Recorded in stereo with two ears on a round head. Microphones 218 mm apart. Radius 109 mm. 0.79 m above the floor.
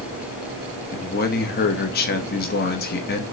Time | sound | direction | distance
0.9 | a man speaking | 40° left (ahead or behind) | 0.8 m